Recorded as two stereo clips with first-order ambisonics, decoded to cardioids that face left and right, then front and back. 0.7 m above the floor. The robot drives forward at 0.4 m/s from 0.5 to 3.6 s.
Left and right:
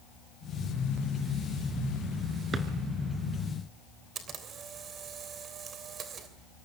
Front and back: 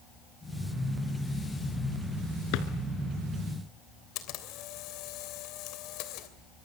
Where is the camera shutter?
30° right, 3 m.